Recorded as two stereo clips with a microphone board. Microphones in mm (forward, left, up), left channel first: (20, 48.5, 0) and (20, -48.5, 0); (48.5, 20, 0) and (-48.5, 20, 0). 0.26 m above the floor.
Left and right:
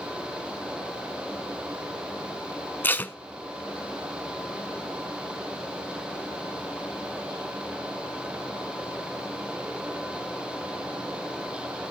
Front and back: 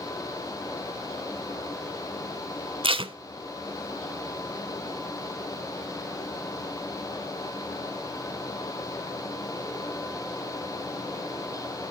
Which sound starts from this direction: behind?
Tape being pulled, at 2.8 s.